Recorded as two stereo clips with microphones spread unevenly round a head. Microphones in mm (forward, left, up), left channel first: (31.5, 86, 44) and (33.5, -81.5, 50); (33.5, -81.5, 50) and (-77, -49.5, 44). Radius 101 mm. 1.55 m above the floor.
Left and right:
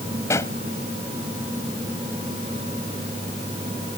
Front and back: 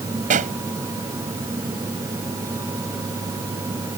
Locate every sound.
0.3 s a pop: 170° left